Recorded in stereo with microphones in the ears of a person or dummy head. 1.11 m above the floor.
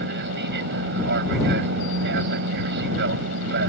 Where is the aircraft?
55° right (ahead or behind).